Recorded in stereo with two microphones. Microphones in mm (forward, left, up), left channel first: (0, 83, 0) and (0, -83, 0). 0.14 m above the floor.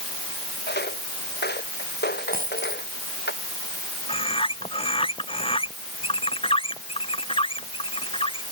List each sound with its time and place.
0.7 s footsteps: 90° left
2.3 s a dropped coin: 60° right (ahead or behind)
4.1 s a bird: 35° left (ahead or behind)